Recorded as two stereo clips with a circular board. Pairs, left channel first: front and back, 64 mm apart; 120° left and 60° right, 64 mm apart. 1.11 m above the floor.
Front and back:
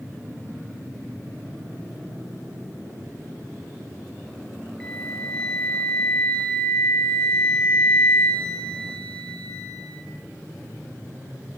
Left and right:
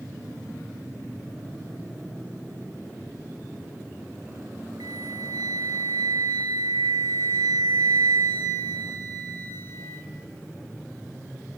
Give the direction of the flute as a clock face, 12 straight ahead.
2 o'clock.